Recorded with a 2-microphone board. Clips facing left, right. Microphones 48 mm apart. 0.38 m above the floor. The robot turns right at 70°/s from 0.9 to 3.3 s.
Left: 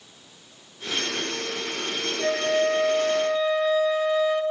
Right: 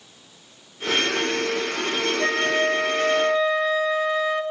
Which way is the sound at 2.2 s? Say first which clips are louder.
Left 1 dB; 130° right.